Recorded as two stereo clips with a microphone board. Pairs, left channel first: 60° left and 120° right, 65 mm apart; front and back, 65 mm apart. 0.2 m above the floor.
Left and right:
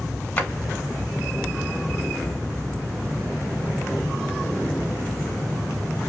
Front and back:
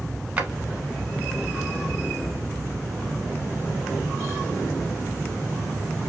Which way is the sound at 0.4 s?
115° left.